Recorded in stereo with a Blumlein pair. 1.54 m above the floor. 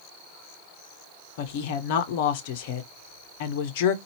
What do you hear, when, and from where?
1.4 s a woman speaking: 50° left, 0.8 m